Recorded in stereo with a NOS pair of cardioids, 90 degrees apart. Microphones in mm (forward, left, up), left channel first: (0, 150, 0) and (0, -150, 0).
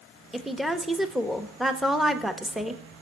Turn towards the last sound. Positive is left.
turn(degrees=0)